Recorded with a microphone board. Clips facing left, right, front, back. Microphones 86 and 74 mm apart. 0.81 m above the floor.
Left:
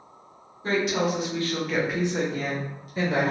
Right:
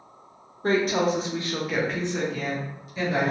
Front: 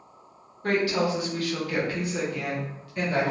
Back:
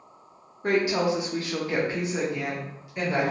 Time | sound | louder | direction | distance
0.6 | a woman speaking | right 2 dB, back 1 dB | 110° right | 0.8 m